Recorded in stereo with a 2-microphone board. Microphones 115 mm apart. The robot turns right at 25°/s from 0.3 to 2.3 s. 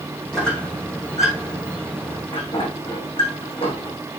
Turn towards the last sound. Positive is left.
turn(degrees=55)  # may be behind; listen again after turning